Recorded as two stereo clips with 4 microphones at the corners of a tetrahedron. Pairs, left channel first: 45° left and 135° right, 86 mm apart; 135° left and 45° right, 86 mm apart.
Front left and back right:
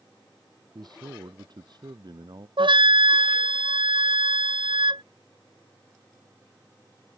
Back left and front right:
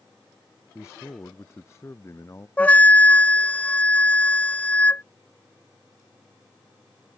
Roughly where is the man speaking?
Behind.